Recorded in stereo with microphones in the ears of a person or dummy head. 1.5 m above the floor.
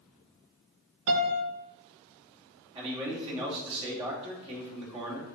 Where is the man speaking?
30° right (ahead or behind), 2.5 m.